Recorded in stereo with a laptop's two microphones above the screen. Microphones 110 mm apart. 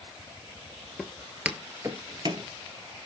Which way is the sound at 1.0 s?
5° left (ahead or behind).